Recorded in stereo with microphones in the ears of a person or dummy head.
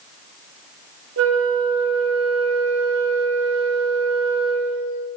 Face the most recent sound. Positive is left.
turn(degrees=-55)  # may be behind; listen again after turning